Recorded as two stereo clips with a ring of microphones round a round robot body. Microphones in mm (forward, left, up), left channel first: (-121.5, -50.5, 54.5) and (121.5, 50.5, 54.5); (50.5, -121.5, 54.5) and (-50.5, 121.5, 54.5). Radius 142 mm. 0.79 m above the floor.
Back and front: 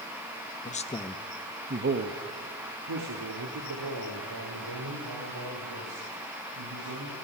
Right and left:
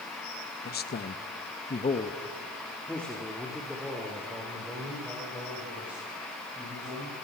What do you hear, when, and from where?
0.7 s a man speaking: 110° right, 1.4 m; by 7.1 s 30° left, 7.5 m